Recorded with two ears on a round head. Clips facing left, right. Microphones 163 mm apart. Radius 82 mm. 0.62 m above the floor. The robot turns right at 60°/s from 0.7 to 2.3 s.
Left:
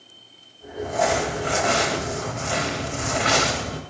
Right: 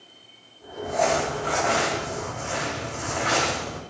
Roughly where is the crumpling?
Ahead.